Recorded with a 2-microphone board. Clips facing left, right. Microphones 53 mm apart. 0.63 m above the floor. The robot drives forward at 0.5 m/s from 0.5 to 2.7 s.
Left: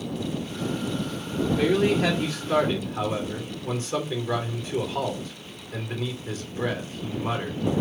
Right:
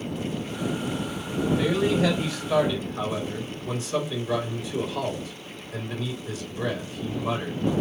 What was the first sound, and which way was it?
A man speaking, 50° left (ahead or behind).